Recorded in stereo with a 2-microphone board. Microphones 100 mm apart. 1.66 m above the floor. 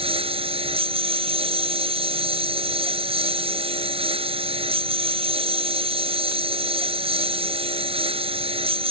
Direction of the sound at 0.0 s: 70° right (ahead or behind).